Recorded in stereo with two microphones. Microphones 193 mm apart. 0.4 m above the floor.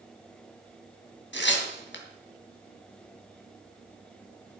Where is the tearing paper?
70° left (ahead or behind), 2.5 m.